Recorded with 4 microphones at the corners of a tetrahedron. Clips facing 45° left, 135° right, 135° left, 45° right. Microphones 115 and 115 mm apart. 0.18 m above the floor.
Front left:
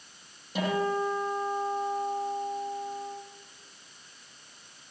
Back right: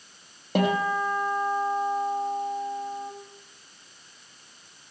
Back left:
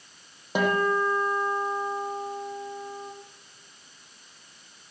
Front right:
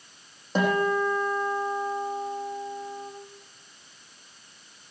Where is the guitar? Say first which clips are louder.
Back right 4 dB, even; 150° right, 4.5 m.